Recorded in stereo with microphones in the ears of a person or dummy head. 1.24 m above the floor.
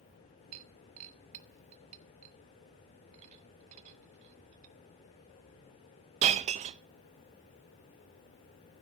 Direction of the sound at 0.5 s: 35° right (ahead or behind).